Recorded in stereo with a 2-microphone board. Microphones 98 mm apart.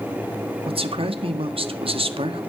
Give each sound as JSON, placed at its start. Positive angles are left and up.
{"t": 0.6, "sound": "a man speaking", "side_deg": -70, "distance_m": 1.7}